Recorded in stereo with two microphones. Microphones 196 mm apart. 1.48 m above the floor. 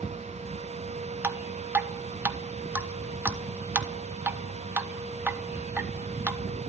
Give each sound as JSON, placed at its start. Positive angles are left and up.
{"t": 1.2, "sound": "dripping", "side_deg": -10, "distance_m": 1.1}